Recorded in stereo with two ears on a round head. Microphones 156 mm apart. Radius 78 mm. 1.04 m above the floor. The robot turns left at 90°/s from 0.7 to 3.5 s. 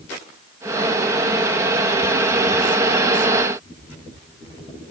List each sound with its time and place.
Only background noise.